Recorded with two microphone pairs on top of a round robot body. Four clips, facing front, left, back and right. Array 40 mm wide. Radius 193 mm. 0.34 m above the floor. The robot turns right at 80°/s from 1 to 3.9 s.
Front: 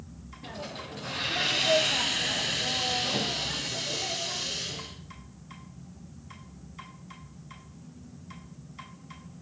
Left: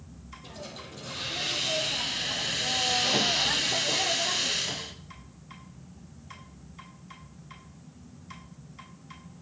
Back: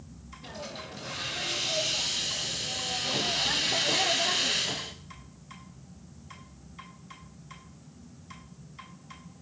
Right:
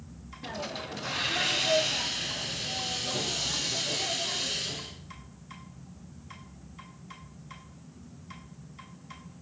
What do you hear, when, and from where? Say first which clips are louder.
0.4 s a hiss: right 7 dB, front 1 dB; 80° right, 0.6 m; by 5.0 s 150° left, 0.6 m